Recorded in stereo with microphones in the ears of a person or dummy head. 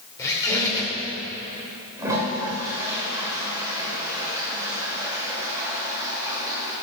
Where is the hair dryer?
I don't hear a hair dryer.